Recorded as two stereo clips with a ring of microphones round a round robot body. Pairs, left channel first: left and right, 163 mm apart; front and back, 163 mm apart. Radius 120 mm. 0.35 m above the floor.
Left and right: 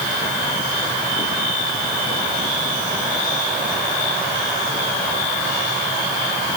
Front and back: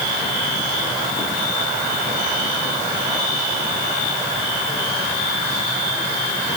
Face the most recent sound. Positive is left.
No sound to turn to.